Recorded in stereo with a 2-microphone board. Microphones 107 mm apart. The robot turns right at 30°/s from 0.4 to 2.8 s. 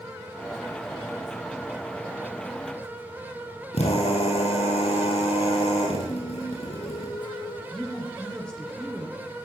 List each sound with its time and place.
3.7 s a drill: 85° left, 5 m
6.1 s singing: 40° left (ahead or behind), 1.2 m
7.7 s a woman speaking: 5° left (ahead or behind), 5 m